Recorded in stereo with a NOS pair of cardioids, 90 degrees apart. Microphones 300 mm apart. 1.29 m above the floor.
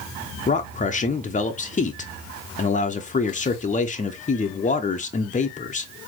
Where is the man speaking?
25° left, 0.7 m.